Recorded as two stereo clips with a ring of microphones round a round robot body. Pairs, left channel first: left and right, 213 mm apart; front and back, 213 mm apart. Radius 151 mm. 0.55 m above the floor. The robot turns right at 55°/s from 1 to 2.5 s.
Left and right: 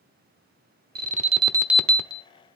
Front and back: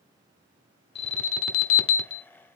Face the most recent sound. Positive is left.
turn(degrees=40)